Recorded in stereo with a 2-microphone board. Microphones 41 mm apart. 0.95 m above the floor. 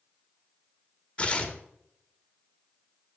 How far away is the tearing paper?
About 1.6 m.